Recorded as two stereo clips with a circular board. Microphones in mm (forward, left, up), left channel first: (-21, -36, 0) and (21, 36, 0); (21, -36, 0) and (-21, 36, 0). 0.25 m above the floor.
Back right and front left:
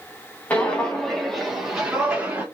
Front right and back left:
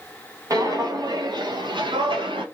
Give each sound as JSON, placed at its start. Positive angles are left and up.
{"t": 0.5, "sound": "footsteps", "azimuth_deg": 170, "distance_m": 1.8}